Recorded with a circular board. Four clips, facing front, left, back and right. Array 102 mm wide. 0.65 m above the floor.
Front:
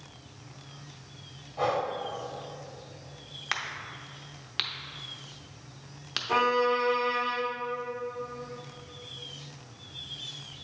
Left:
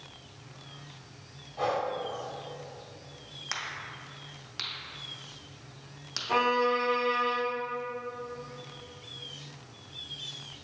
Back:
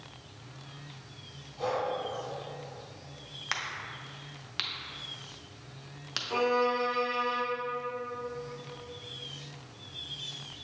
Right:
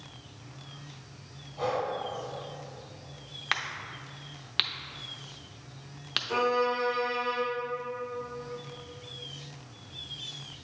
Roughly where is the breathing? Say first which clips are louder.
Left 1 dB, front 3 dB; ahead left.